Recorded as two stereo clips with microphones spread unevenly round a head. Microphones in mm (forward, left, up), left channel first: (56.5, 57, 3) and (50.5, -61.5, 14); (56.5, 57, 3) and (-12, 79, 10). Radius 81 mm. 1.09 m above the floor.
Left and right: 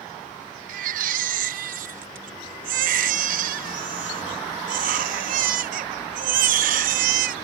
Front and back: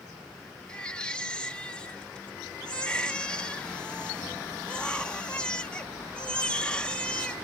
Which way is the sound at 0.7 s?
100° right.